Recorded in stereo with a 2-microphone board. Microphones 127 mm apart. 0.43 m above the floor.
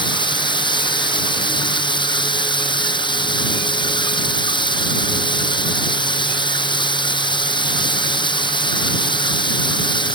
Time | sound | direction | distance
0.0 | running water | 40° left (ahead or behind) | ?